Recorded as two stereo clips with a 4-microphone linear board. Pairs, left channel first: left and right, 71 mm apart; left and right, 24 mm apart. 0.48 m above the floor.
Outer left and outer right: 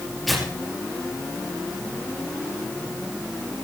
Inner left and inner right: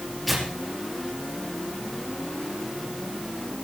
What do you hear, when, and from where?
0.3 s tearing paper: centre (ahead or behind), 5 m